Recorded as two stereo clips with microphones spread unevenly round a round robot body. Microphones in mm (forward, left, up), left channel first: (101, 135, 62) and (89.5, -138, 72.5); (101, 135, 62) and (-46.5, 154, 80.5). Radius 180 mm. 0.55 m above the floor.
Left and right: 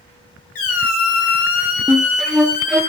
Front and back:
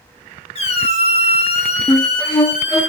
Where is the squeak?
45° left, 0.8 m.